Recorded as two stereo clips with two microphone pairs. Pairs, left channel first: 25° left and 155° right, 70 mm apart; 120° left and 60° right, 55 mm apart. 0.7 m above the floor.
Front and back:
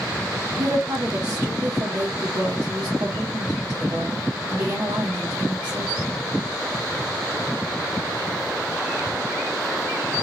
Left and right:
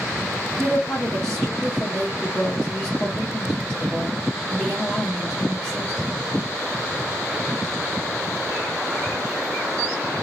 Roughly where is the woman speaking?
Behind.